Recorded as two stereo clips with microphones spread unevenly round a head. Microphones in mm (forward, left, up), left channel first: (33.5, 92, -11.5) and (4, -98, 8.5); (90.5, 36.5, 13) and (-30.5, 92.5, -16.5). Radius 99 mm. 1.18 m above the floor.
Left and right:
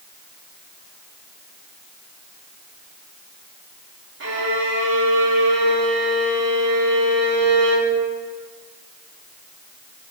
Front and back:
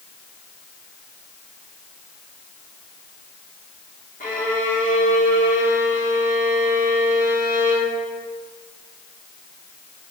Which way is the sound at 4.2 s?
70° right.